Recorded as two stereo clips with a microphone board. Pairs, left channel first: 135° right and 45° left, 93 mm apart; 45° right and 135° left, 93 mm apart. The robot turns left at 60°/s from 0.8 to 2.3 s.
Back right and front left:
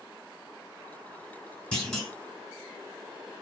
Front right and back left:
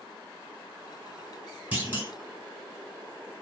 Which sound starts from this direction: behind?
A clunk, at 1.7 s.